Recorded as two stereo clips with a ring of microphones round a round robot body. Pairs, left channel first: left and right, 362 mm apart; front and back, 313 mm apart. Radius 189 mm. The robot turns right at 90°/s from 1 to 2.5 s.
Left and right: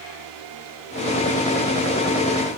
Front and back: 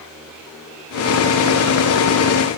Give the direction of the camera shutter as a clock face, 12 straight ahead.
I don't hear a camera shutter.